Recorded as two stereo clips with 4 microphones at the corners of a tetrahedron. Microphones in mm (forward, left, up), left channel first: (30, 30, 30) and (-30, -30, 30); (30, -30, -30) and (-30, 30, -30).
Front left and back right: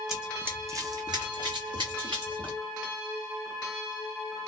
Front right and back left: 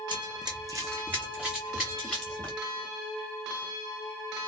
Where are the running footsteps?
140° left, 0.8 m; by 2.6 s 125° right, 1.7 m.